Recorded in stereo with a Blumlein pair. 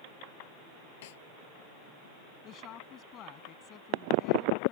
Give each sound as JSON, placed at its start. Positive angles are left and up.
{"t": 1.0, "sound": "a snare drum", "azimuth_deg": 55}
{"t": 2.4, "sound": "a woman speaking", "azimuth_deg": 30}